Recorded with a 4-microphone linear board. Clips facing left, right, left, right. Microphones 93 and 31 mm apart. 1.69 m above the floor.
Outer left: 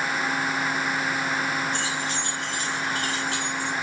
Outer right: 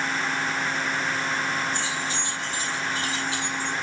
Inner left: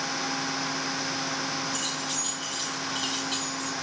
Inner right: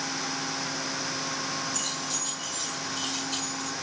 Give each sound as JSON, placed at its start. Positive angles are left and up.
{"t": 1.7, "sound": "keys jangling", "side_deg": 75, "distance_m": 8.0}